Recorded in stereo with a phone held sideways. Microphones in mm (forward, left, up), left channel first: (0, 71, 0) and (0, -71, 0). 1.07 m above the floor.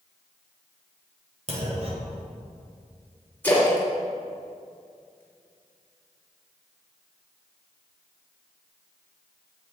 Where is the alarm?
No alarm in this recording.